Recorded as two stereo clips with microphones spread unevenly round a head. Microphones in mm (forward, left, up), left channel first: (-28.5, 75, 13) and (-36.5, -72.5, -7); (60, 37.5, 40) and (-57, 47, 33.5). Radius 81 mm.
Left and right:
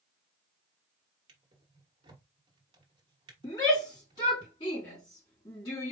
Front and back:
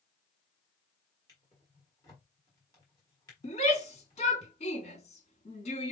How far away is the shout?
About 3 m.